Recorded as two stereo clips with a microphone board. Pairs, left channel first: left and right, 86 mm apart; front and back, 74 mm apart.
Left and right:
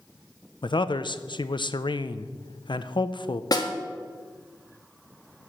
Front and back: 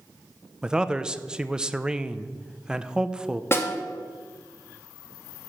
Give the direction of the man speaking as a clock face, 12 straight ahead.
9 o'clock.